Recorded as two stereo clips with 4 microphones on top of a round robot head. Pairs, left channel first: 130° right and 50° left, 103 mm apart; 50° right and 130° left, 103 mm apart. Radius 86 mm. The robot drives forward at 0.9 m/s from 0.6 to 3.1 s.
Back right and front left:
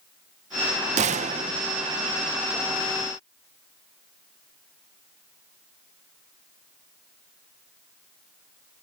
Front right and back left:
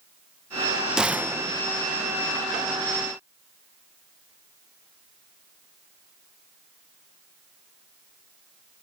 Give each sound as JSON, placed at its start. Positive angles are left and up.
{"t": 1.0, "sound": "a gunshot", "azimuth_deg": 45}